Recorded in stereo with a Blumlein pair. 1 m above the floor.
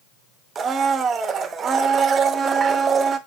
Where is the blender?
20° right, 0.8 m.